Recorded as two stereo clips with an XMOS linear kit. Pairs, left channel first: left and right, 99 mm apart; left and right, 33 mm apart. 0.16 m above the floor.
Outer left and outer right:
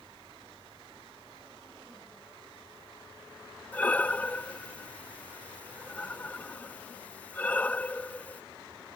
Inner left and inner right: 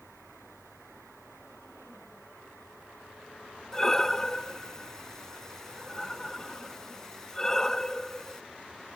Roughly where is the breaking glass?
No breaking glass in this recording.